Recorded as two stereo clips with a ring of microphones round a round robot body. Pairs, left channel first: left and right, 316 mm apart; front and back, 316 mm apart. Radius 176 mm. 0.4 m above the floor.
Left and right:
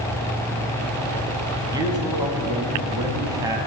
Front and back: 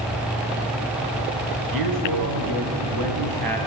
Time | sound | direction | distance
1.7 | a man speaking | 170° right | 3.5 m